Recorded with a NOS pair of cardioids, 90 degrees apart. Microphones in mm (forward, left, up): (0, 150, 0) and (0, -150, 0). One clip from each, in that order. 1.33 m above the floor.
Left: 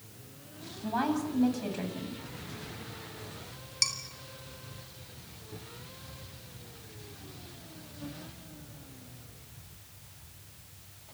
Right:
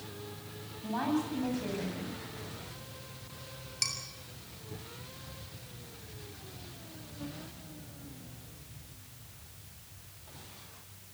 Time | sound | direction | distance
0.8 | a woman speaking | 40° left | 8.5 m
3.8 | dishes clattering | 20° left | 4.5 m